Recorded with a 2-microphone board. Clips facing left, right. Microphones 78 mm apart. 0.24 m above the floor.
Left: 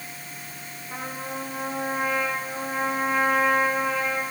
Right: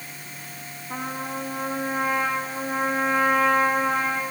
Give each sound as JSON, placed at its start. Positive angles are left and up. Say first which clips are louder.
{"t": 0.9, "sound": "a trumpet", "louder": "right 3 dB", "side_deg": -60, "distance_m": 9.5}